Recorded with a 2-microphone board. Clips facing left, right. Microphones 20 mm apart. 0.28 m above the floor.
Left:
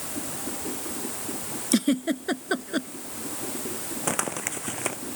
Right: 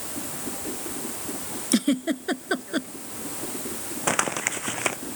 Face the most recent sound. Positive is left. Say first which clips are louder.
# right 5 dB
turn(degrees=-35)  # may be behind; listen again after turning